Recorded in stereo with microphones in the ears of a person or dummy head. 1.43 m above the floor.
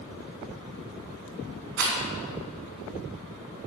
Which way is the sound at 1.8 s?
70° right (ahead or behind).